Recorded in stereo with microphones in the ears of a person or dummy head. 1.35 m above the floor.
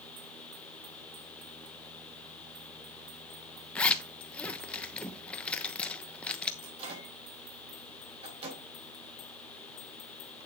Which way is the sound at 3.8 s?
10° left (ahead or behind).